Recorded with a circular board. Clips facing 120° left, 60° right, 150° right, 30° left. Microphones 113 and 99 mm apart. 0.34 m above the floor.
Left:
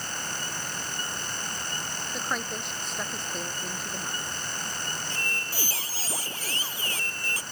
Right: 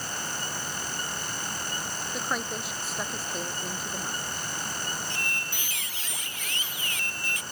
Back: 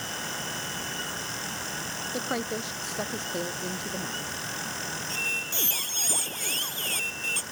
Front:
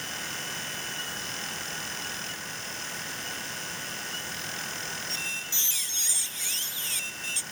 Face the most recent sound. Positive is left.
turn(degrees=175)